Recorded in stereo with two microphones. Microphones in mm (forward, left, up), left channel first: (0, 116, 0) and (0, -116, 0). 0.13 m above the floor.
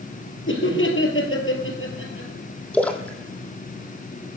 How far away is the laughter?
About 3.5 m.